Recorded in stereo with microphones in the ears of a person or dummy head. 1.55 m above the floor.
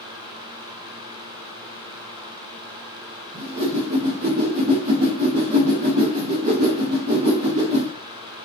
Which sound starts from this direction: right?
A whoosh, at 3.3 s.